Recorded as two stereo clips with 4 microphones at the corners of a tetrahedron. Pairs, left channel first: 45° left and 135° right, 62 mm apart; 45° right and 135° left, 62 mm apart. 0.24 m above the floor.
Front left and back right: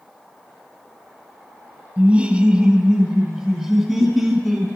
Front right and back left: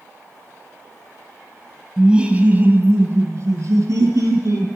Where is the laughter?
160° right, 0.9 m; by 4.7 s 140° left, 2.5 m.